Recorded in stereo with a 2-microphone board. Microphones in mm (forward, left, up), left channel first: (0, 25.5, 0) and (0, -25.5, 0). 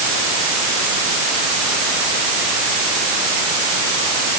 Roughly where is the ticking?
No ticking in this recording.